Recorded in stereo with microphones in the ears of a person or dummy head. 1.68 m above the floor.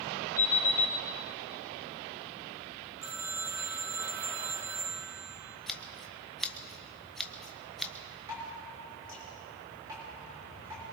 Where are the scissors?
5° left (ahead or behind), 0.6 m.